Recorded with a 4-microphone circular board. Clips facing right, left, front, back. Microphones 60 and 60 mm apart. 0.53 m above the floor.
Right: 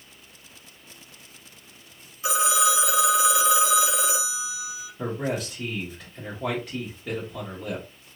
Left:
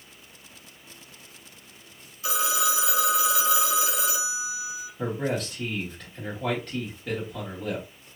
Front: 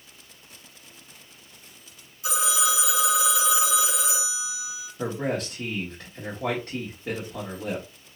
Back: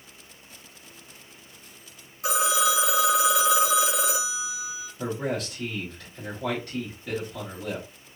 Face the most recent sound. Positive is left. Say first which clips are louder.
# even, front 1 dB
turn(degrees=-15)